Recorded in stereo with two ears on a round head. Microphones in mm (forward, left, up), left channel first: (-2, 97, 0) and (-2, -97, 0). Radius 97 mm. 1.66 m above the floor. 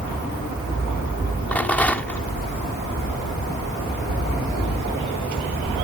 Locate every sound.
1.5 s a rattle: 10° left (ahead or behind)